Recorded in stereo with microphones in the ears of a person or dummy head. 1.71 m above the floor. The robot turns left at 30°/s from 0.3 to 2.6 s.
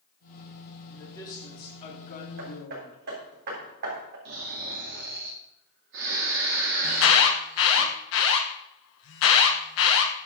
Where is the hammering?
60° right (ahead or behind), 3.5 m; by 4.2 s 55° right (ahead or behind), 3.5 m.